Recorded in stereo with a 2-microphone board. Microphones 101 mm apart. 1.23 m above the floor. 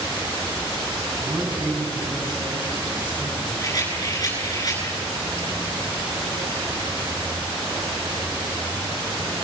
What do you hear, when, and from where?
1.2 s a man speaking: 50° right (ahead or behind), 8 m
3.6 s a rattle: 35° left (ahead or behind), 9 m